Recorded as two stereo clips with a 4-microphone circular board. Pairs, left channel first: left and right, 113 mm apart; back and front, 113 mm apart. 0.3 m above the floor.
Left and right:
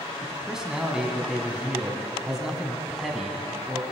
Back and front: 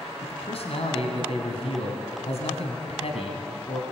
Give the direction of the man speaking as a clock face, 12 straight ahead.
6 o'clock.